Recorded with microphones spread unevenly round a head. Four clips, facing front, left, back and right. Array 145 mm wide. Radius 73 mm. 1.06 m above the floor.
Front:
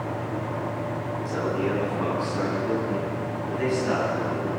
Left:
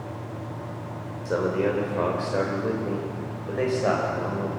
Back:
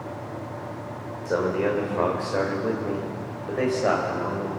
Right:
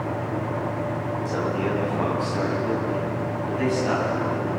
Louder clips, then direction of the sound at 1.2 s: Left 4 dB, back 4 dB; 145° left.